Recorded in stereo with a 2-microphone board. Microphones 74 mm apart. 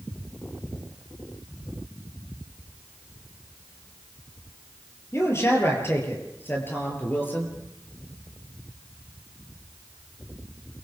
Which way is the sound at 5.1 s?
35° left (ahead or behind).